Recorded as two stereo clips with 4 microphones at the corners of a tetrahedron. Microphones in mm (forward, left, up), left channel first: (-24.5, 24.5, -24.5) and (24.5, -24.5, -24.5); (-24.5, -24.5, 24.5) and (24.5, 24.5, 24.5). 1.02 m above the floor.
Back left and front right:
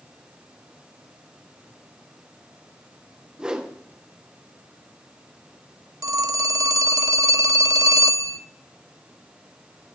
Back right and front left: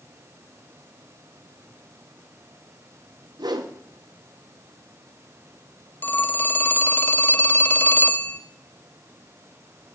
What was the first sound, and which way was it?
A whoosh, 35° left.